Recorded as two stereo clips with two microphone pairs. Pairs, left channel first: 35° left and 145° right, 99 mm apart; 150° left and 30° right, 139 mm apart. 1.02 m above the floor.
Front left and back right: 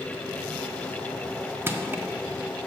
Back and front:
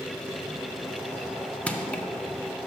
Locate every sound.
1.7 s crushing: 140° right, 0.5 m